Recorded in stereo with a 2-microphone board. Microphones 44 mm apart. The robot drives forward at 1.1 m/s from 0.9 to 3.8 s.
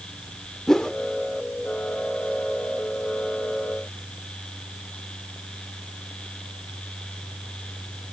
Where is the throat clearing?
No throat clearing in this recording.